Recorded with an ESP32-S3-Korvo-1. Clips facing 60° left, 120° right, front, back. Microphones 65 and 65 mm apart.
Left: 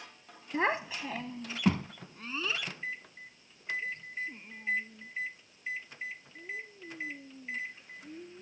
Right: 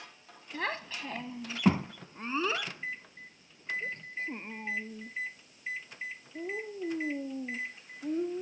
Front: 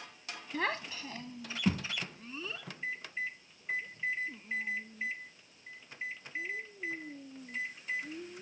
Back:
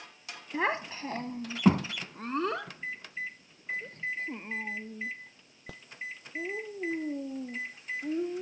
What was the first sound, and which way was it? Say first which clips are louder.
A child speaking: left 5 dB, back 4 dB; 110° left.